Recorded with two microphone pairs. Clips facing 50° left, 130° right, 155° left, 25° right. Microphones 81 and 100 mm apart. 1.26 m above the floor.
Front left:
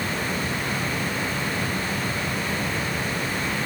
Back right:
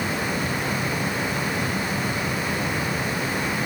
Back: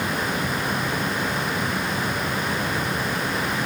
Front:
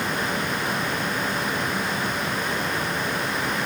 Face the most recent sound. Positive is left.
No sound to turn to.